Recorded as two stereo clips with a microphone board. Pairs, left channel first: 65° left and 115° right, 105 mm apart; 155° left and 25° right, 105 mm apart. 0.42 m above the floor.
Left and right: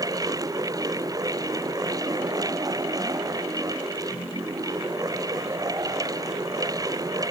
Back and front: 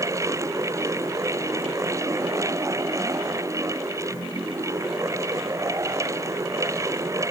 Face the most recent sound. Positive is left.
No sound to turn to.